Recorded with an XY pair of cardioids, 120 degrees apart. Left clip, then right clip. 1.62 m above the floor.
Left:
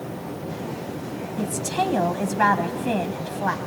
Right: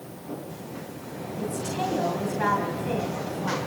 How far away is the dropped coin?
No dropped coin in this recording.